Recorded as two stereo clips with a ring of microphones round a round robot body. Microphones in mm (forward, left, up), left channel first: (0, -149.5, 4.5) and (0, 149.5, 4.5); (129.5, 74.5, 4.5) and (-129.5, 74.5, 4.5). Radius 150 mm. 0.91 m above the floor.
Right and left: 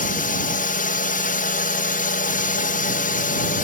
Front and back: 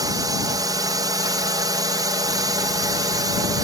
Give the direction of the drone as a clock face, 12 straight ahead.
4 o'clock.